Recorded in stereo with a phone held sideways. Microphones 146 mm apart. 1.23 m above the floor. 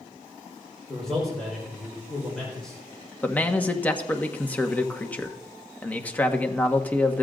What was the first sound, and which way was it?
A man speaking, 5° left (ahead or behind).